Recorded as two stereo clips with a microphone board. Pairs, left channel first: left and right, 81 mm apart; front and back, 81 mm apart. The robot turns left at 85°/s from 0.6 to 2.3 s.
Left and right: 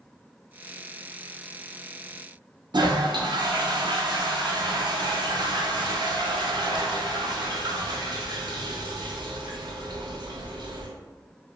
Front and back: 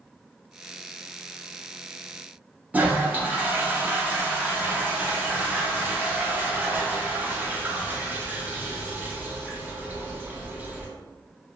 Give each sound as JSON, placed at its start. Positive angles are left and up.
{"t": 2.7, "sound": "a toilet flushing", "azimuth_deg": -115, "distance_m": 0.8}